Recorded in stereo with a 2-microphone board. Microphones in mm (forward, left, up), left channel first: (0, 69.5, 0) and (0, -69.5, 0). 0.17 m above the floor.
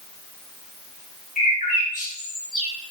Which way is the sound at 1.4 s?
65° left (ahead or behind).